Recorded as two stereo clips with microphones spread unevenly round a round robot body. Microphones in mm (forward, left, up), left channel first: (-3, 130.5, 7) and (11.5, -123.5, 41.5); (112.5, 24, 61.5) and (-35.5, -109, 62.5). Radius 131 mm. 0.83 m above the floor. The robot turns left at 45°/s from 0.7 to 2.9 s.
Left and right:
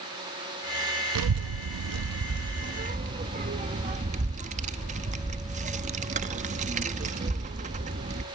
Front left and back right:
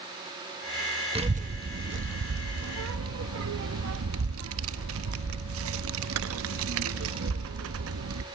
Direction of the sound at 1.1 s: 75° right.